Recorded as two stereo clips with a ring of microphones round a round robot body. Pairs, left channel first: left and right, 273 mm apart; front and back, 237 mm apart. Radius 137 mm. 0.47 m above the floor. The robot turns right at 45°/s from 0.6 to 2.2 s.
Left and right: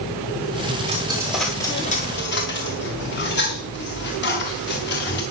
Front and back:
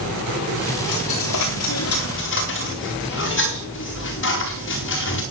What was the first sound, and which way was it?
A dropped coin, 25° right.